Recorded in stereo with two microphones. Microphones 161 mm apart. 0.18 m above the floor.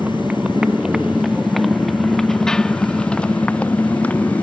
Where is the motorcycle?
10° right (ahead or behind); by 4.4 s 10° left (ahead or behind).